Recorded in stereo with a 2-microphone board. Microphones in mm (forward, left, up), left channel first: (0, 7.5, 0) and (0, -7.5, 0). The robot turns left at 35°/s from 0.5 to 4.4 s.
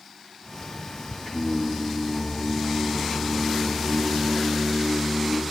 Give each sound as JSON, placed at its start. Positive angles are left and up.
{"t": 1.2, "sound": "singing", "azimuth_deg": 135, "distance_m": 2.5}